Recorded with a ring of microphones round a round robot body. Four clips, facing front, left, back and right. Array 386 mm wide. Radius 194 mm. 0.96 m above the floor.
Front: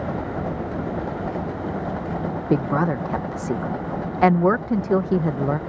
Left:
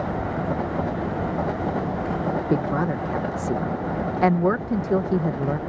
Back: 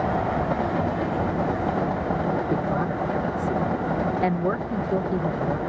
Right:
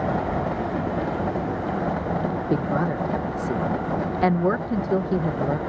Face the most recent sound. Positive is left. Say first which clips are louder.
# right 1 dB, front 4 dB
turn(degrees=5)